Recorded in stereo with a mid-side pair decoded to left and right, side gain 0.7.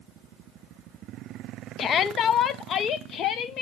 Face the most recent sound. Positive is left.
turn(degrees=45)